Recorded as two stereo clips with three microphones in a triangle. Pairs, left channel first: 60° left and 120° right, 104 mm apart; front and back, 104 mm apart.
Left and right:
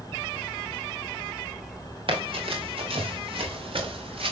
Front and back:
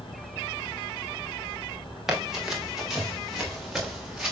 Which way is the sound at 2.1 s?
95° right.